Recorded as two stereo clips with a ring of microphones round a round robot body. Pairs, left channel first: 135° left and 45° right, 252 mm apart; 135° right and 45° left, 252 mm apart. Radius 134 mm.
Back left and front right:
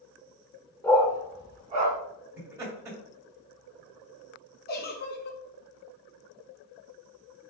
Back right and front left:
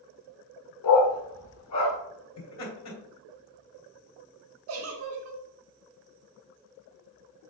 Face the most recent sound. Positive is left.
turn(degrees=80)